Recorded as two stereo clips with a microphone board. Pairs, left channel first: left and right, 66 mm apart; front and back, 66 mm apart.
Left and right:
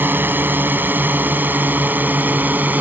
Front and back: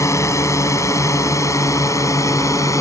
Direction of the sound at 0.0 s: 35° right.